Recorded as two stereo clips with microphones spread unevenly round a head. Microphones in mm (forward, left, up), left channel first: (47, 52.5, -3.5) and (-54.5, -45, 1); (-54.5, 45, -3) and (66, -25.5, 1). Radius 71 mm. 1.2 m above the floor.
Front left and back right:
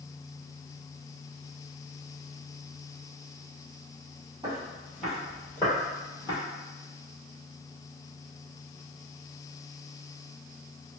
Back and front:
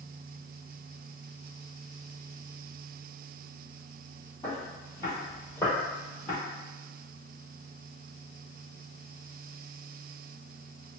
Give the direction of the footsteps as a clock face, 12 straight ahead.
6 o'clock.